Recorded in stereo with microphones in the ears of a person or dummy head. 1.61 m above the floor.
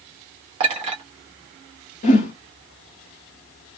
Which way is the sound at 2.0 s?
30° left (ahead or behind).